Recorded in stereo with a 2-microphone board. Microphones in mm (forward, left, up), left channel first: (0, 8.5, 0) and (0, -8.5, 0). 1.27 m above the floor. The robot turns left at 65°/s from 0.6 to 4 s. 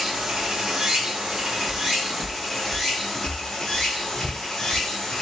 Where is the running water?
60° right, 1.7 m; by 5.2 s 80° left, 1.7 m.